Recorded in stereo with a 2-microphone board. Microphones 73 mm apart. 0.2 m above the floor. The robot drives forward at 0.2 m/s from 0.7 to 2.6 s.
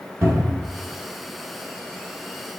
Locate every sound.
0.2 s a cupboard door: 45° right (ahead or behind), 1.1 m